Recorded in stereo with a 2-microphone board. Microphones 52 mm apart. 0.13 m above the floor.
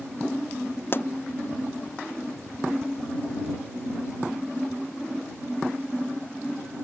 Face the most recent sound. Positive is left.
turn(degrees=40)  # may be behind; listen again after turning